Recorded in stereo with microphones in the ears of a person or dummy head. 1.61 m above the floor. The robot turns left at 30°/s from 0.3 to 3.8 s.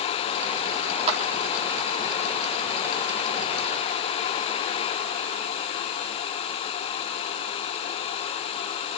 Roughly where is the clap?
Right.